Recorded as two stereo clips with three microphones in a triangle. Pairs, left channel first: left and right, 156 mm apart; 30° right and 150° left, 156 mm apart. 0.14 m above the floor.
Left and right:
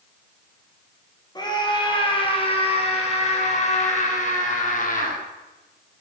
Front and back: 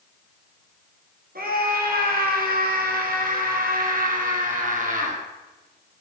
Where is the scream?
150° left, 4 m; by 5.2 s 120° left, 5 m.